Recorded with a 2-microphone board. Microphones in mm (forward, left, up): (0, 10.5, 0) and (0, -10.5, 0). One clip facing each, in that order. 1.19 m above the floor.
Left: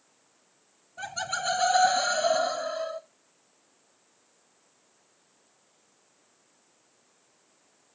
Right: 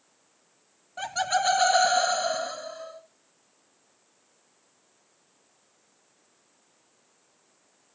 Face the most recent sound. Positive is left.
turn(degrees=20)  # may be behind; listen again after turning